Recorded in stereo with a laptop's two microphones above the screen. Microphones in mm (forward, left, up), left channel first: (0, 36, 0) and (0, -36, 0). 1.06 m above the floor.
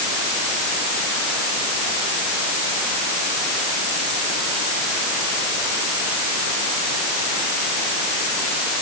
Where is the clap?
No clap in this recording.